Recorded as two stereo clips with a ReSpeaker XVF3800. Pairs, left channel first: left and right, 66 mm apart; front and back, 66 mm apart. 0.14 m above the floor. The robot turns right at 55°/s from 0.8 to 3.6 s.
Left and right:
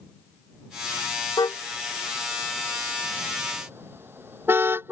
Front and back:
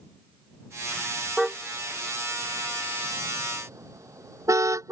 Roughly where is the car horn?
Left.